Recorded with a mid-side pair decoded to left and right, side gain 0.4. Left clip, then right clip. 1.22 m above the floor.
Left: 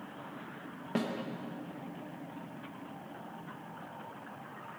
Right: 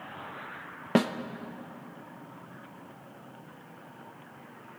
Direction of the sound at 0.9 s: 70° right.